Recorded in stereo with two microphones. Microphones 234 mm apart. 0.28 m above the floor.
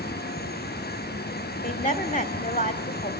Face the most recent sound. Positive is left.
turn(degrees=35)  # may be behind; listen again after turning